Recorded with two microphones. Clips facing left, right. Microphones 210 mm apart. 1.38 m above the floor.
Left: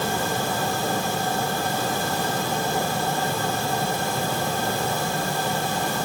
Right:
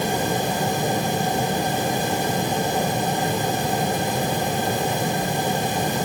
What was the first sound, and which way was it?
Only background noise.